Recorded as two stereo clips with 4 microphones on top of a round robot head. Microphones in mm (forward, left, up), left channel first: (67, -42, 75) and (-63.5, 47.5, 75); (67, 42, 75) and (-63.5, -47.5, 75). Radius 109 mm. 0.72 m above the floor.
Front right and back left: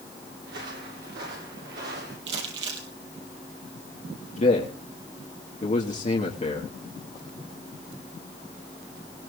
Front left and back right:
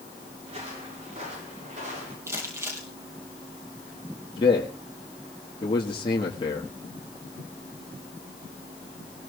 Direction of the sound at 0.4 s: 160° left.